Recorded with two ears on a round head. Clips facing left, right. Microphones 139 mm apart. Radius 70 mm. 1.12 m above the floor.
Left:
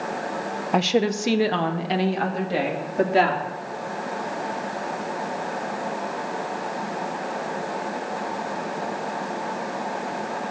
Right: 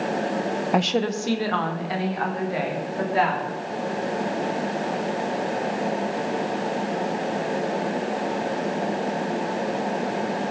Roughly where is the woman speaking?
Centre.